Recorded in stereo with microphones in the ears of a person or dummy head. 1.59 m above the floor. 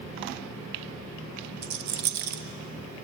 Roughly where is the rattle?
Right.